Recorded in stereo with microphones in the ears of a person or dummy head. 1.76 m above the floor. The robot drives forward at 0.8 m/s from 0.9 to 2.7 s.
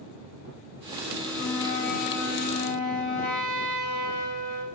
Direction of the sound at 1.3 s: 80° left.